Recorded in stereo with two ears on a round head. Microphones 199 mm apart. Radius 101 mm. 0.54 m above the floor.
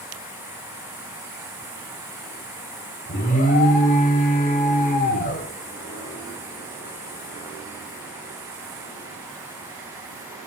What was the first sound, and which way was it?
An alarm, 35° left (ahead or behind).